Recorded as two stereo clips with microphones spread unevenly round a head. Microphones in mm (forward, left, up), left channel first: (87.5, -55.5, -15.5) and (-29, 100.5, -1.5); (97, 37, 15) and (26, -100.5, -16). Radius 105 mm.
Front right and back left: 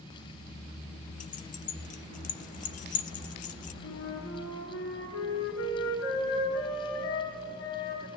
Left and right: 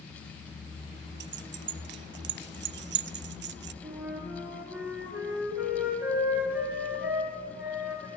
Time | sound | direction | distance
1.2 | keys jangling | 110° right | 0.6 m
3.8 | a flute | 35° right | 5 m